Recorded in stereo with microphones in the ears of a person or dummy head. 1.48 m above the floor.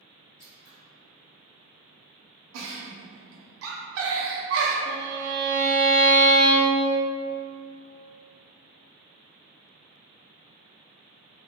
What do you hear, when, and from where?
0.4 s scissors: 65° left (ahead or behind), 1.5 m
2.5 s a giggle: 80° right, 0.5 m
4.8 s a violin: 75° left (ahead or behind), 0.8 m